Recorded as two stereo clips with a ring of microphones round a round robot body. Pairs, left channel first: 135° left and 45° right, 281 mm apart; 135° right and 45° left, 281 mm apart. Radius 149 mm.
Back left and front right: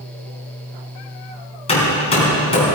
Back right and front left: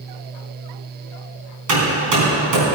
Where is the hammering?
65° left, 3.5 m.